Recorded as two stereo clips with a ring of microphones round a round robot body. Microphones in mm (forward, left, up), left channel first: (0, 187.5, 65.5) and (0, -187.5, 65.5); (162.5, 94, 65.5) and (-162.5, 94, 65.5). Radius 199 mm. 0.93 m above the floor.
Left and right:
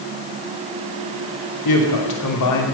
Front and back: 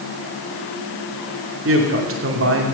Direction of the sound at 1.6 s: 130° left.